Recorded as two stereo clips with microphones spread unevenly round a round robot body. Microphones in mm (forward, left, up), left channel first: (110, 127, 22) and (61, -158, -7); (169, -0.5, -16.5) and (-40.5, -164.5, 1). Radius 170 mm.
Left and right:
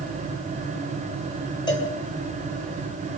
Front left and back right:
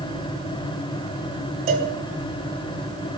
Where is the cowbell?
160° left, 2 m.